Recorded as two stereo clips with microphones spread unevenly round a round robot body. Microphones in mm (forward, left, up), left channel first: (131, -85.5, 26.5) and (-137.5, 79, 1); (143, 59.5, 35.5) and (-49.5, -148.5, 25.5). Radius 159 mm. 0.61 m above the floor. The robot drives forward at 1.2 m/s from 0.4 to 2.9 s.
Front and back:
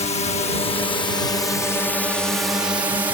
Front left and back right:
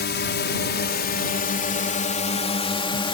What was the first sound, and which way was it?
A drone, 30° left.